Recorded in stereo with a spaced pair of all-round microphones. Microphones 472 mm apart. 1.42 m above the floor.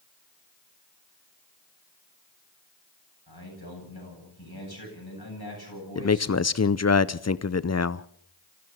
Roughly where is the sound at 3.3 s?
Left.